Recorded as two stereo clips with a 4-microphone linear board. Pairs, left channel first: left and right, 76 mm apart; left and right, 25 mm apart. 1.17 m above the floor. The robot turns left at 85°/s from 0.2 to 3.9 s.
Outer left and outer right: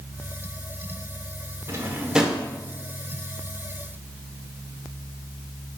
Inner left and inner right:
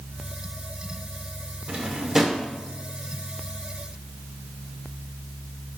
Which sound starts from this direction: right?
A drawer, at 1.7 s.